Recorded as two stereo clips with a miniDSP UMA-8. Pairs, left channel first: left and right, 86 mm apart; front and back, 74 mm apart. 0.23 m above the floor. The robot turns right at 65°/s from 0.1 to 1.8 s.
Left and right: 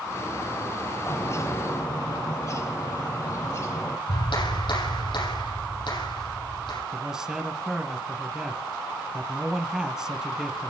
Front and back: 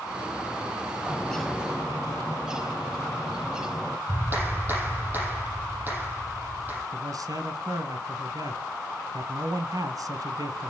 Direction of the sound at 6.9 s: 170° right.